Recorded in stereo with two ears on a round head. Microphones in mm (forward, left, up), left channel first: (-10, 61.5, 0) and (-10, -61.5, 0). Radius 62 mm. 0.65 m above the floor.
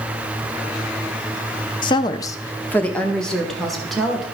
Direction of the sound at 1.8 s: 35° left (ahead or behind).